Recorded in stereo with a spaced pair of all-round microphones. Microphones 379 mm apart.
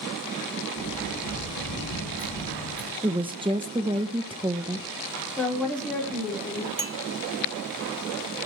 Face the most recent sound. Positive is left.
turn(degrees=-55)  # may be behind; listen again after turning